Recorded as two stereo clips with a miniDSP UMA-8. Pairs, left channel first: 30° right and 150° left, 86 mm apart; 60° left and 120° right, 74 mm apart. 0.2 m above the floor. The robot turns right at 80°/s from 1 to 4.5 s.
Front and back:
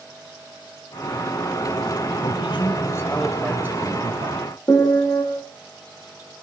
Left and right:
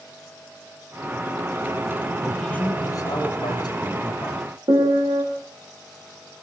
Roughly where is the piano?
Right.